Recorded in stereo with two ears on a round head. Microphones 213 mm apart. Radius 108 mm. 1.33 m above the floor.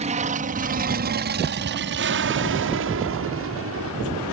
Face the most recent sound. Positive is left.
turn(degrees=-70)  # may be behind; listen again after turning